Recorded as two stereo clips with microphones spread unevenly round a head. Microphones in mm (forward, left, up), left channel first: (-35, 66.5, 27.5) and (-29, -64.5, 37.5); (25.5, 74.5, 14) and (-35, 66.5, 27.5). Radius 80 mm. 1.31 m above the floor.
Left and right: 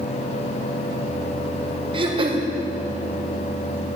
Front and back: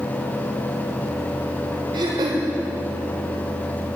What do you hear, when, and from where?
1.9 s throat clearing: 140° right, 1.5 m